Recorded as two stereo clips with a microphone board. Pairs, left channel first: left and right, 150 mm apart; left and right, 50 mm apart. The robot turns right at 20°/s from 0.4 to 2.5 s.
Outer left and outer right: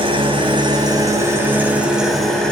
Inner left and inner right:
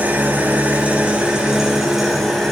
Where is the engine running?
35° right, 3 m; by 2.5 s 5° left, 3 m.